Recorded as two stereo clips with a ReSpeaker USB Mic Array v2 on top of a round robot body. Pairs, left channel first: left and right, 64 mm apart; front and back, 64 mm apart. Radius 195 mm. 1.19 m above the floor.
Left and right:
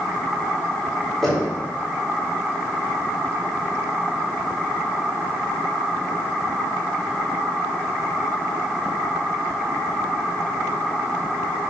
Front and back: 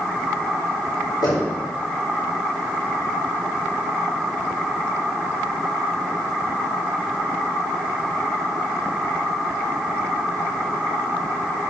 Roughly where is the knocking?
Ahead.